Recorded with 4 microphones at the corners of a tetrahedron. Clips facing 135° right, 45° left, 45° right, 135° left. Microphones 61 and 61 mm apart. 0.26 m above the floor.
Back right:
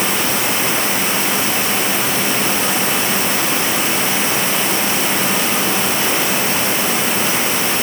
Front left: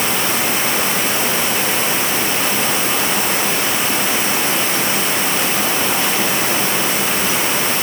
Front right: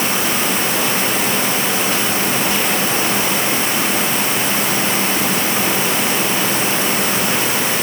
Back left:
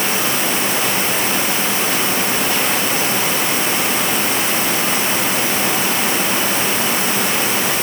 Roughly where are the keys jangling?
I don't hear keys jangling.